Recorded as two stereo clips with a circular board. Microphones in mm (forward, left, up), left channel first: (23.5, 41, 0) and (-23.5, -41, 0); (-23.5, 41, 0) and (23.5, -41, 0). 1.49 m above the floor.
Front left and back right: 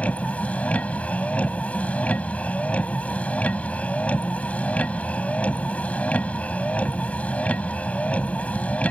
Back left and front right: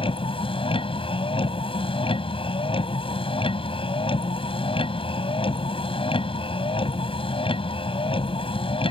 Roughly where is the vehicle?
Behind left.